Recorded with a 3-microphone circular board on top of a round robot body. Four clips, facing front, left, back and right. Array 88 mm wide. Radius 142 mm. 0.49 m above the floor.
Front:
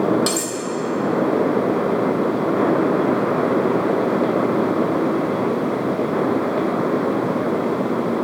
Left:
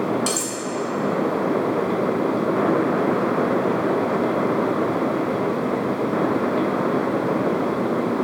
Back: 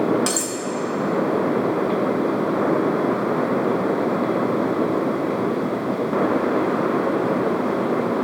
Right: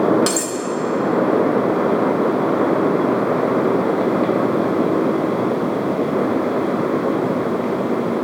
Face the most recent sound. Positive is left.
turn(degrees=-105)